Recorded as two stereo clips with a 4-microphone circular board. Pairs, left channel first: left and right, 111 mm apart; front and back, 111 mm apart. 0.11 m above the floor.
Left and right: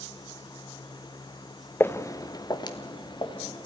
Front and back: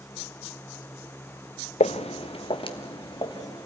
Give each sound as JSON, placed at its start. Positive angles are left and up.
{"t": 1.8, "sound": "footsteps", "azimuth_deg": 15, "distance_m": 0.7}